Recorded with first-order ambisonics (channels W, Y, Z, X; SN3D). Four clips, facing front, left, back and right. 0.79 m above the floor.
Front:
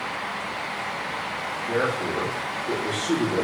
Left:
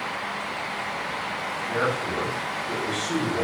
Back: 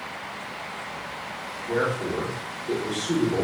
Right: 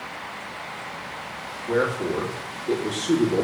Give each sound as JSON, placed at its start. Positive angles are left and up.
{"t": 1.7, "sound": "a man speaking", "azimuth_deg": -80, "distance_m": 1.6}